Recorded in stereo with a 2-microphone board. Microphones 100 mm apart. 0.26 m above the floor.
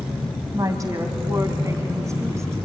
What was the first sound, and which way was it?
A woman speaking, 35° right (ahead or behind).